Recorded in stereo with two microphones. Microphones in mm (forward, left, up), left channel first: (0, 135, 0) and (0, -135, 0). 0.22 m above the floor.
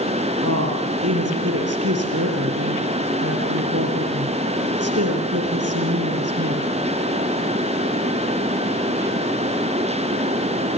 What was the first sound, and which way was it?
A woman speaking, 65° right (ahead or behind).